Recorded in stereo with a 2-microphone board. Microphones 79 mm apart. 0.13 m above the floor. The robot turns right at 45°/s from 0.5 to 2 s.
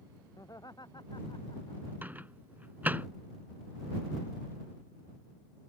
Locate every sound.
0.4 s laughter: 50° left (ahead or behind); by 1.9 s 60° left (ahead or behind)
2.0 s a microwave: 20° right (ahead or behind)